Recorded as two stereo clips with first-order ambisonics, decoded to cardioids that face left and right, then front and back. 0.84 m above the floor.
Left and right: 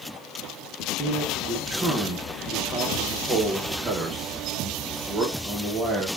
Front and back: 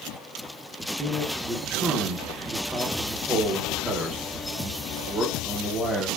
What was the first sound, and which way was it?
A man speaking, 120° right.